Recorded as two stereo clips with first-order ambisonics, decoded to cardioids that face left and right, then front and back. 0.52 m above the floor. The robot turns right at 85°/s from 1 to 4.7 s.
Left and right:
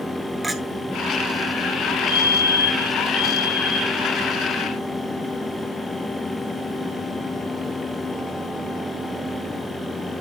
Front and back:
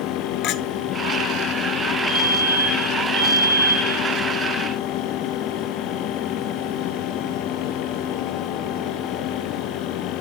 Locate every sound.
0.4 s a clink: 10° right, 0.8 m
2.1 s a fire alarm: 50° left, 3 m; by 4.0 s 145° right, 3 m